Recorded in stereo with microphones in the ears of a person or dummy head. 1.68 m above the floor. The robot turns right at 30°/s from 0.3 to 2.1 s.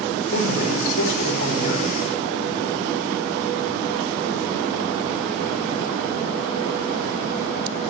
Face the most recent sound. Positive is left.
turn(degrees=145)